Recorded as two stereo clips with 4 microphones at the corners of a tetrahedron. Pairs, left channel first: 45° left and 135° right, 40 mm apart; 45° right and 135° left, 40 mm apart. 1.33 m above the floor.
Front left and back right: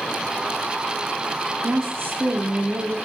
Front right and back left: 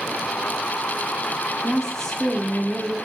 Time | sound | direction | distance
1.6 | a woman speaking | 115° right | 2 m